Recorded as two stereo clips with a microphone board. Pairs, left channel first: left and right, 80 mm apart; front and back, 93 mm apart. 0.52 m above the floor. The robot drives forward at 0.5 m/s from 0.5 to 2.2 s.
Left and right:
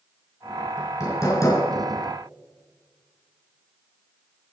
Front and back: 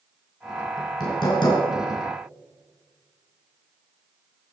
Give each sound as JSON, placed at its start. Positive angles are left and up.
{"t": 0.8, "sound": "hammering", "azimuth_deg": 45, "distance_m": 5.0}